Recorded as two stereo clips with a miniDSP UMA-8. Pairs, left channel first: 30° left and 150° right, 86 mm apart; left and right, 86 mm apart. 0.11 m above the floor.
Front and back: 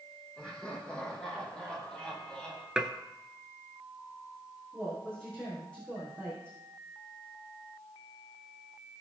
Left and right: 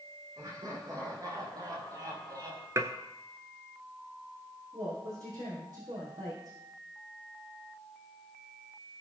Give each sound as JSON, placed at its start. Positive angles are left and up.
{"t": 0.4, "sound": "laughter", "azimuth_deg": -50, "distance_m": 6.0}
{"t": 2.8, "sound": "dishes clattering", "azimuth_deg": -75, "distance_m": 1.0}
{"t": 4.7, "sound": "a woman speaking", "azimuth_deg": -50, "distance_m": 5.0}